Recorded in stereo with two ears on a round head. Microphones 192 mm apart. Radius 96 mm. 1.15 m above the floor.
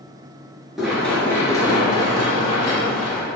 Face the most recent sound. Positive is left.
turn(degrees=40)  # may be behind; listen again after turning